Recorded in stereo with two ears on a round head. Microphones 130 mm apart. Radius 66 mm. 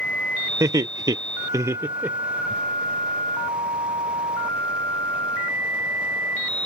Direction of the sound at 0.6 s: 20° right (ahead or behind).